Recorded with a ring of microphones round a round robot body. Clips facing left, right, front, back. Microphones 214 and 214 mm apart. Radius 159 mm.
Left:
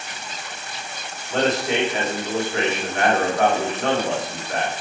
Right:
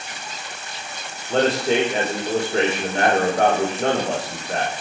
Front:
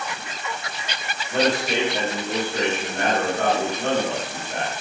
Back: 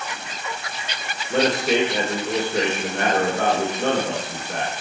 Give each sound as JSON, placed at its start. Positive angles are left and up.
{"t": 1.3, "sound": "a man speaking", "azimuth_deg": -145, "distance_m": 3.5}